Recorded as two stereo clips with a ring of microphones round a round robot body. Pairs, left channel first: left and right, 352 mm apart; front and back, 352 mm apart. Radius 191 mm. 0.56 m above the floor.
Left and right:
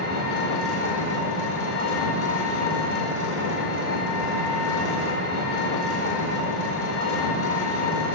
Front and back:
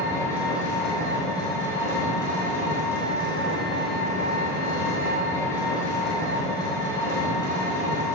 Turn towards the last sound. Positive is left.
turn(degrees=80)